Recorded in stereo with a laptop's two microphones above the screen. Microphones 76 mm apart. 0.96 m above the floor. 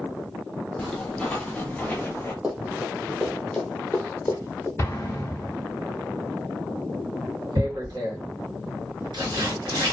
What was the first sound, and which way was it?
Footsteps, 5° left (ahead or behind).